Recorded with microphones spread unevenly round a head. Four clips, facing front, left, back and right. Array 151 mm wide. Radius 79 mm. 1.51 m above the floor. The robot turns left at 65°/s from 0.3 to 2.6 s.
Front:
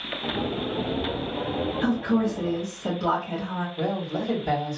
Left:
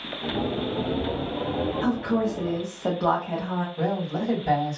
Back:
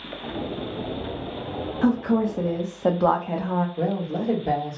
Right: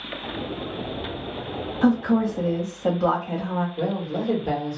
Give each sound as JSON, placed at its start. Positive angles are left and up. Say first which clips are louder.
{"t": 1.8, "sound": "a woman speaking", "louder": "right 7 dB, back 4 dB", "azimuth_deg": -125, "distance_m": 0.7}
{"t": 3.8, "sound": "a man speaking", "louder": "even, back 2 dB", "azimuth_deg": -155, "distance_m": 1.5}